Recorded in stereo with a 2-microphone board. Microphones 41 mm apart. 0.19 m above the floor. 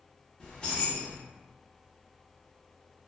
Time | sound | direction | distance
0.4 | keys jangling | 25° left (ahead or behind) | 1.0 m